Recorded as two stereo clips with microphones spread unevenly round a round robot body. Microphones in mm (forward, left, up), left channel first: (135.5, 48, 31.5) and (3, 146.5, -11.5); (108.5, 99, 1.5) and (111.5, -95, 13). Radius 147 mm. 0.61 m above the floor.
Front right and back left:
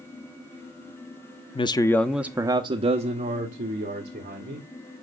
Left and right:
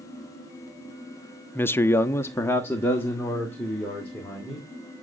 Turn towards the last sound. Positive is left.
turn(degrees=175)